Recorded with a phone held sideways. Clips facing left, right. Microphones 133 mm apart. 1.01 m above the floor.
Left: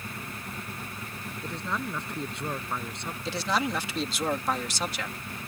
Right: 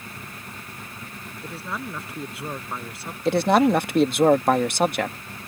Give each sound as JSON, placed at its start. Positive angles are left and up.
{"t": 1.4, "sound": "a man speaking", "side_deg": -5}
{"t": 3.2, "sound": "a man speaking", "side_deg": -55}